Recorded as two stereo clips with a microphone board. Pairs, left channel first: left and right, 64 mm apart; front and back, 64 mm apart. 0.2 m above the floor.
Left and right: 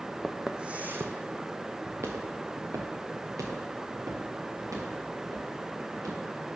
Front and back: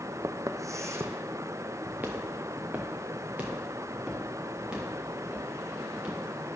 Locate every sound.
0.2 s footsteps: 170° left, 0.5 m; by 6.2 s 105° right, 4 m